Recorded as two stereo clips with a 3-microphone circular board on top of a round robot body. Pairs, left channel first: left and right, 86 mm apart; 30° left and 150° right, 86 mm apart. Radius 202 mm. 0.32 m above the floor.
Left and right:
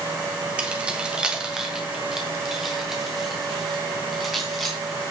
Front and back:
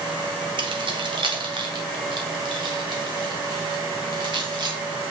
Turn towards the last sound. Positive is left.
turn(degrees=180)